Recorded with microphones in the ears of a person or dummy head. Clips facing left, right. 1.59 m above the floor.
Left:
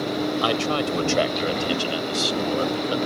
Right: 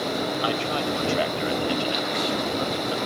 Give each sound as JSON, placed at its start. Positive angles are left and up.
{"t": 0.4, "sound": "a man speaking", "side_deg": 70}